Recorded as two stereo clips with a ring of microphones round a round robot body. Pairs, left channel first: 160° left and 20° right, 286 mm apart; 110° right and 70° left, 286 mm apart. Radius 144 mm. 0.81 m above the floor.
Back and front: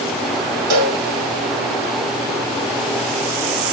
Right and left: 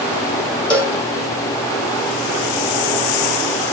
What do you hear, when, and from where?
0.7 s a cowbell: 25° right, 5.5 m